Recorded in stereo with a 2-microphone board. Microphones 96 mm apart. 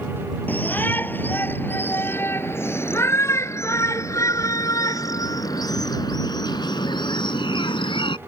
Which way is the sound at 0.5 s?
20° left (ahead or behind).